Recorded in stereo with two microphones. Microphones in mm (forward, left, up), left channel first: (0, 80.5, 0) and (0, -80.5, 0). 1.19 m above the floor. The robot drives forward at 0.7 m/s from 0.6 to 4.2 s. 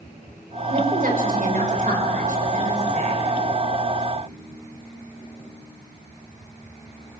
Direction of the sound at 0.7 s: 65° right (ahead or behind).